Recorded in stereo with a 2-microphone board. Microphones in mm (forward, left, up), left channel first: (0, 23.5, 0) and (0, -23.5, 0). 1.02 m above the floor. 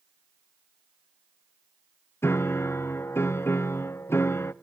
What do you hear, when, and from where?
2.2 s a piano: 70° left (ahead or behind), 0.7 m